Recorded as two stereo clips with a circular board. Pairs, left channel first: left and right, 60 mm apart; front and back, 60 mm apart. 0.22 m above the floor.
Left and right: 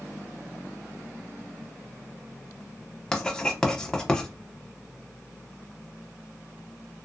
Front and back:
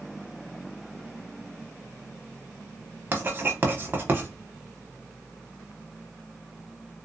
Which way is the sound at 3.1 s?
155° left.